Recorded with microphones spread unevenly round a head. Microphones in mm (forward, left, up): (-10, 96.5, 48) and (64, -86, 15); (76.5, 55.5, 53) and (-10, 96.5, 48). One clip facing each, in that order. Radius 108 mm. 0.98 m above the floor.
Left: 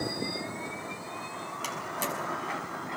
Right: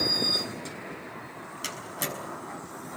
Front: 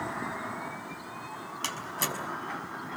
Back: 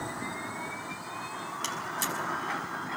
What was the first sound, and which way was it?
A door slam, 10° left.